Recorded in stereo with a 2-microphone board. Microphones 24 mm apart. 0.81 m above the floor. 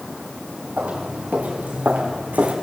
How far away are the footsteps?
About 5.5 m.